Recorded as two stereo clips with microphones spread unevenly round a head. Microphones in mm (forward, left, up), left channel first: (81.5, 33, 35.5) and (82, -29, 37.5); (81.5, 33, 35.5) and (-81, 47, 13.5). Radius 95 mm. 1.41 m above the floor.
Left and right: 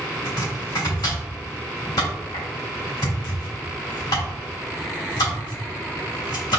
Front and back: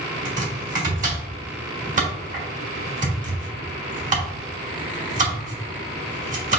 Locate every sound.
0.2 s chopping: 135° left, 2 m